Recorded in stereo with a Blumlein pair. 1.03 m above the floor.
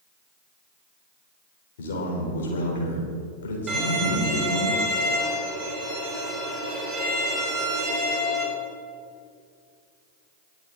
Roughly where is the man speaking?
Ahead left.